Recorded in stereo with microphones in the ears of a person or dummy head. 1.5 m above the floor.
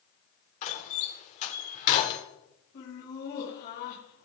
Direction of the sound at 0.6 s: 45° left (ahead or behind).